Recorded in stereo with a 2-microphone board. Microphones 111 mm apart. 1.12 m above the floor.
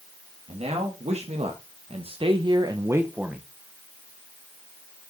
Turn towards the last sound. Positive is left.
turn(degrees=0)  # may be behind; listen again after turning